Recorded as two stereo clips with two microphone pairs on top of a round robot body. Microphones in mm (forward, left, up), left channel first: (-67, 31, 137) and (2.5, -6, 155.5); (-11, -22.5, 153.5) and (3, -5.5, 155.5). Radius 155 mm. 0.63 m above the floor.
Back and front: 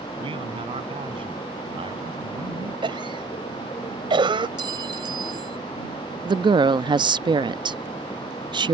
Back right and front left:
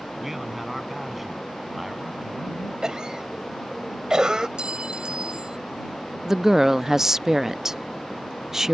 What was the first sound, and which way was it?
A man speaking, 25° right.